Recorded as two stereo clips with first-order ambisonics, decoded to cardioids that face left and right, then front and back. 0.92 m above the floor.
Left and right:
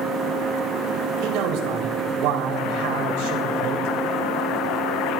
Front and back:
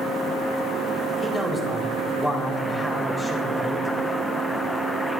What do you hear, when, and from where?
1.2 s a man speaking: 80° right, 4.5 m